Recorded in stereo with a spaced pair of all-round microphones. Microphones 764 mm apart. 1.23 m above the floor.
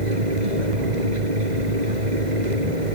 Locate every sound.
0.0 s a fan: 70° right (ahead or behind)